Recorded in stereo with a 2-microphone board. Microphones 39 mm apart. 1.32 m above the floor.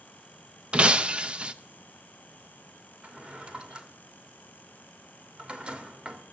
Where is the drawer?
30° right (ahead or behind), 1.5 m.